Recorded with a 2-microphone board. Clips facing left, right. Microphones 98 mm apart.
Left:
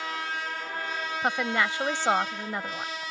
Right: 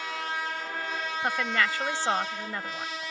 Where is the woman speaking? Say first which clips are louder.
Left 1 dB; 20° left (ahead or behind).